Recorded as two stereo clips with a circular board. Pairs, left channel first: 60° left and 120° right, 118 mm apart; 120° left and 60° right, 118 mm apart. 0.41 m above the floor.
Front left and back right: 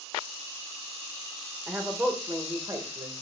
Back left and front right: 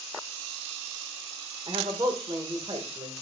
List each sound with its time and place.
1.7 s a man speaking: 50° right, 1.4 m; by 3.1 s 75° right, 1.9 m